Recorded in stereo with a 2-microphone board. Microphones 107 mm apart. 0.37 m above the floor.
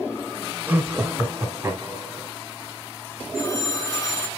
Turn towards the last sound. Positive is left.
turn(degrees=30)  # may be behind; listen again after turning